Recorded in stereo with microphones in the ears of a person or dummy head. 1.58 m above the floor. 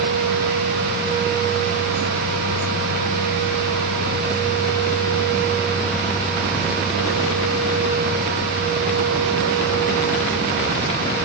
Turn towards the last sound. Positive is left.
No sound to turn to.